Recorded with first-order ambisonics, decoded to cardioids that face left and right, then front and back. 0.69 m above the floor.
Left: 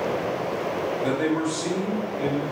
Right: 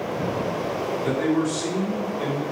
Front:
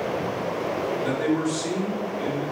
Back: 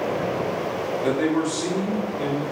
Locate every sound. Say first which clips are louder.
1.0 s a man speaking: right 2 dB, back 4 dB; 160° left, 1.0 m; by 2.4 s 140° right, 1.5 m